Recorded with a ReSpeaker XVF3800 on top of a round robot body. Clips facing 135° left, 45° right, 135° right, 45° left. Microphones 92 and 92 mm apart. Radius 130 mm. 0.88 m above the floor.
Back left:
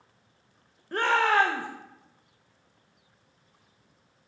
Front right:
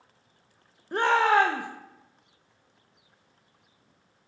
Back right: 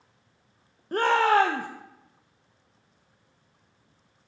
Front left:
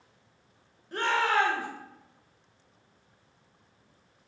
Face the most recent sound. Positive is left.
turn(degrees=-115)